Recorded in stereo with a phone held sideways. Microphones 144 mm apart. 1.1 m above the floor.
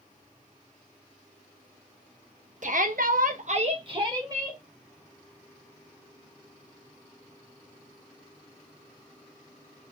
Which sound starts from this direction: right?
A shout, at 2.6 s.